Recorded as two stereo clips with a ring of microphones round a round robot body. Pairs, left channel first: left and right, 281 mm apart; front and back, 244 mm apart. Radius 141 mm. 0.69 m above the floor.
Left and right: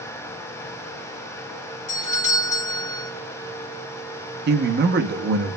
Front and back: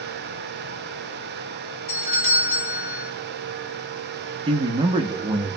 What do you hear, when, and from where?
1.9 s a doorbell: 25° left, 2 m
4.5 s a man speaking: 120° right, 0.7 m